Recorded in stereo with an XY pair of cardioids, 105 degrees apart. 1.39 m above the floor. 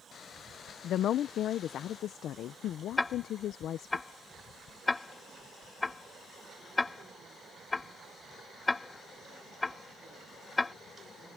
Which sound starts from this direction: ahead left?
A woman speaking, at 0.8 s.